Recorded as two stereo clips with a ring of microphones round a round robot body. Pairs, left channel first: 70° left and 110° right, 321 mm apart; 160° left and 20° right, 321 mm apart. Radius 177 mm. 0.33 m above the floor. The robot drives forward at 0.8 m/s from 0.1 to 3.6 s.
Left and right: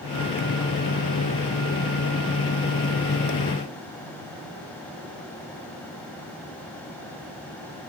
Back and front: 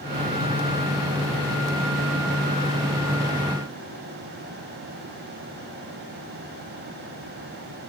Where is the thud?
No thud in this recording.